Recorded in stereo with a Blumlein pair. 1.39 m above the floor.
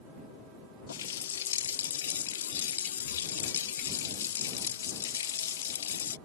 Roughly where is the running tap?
Ahead left.